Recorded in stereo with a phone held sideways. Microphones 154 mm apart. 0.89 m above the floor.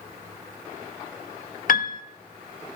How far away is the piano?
About 0.5 m.